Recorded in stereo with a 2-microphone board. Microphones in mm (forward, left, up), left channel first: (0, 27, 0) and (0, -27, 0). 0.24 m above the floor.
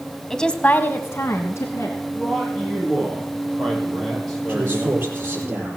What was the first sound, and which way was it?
A woman speaking, 5° left (ahead or behind).